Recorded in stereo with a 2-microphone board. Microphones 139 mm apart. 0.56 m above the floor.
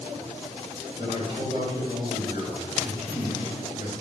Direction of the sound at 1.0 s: 50° right (ahead or behind).